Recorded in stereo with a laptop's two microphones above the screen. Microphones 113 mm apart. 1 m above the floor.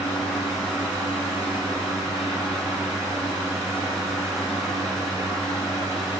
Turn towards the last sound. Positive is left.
turn(degrees=-30)  # may be behind; listen again after turning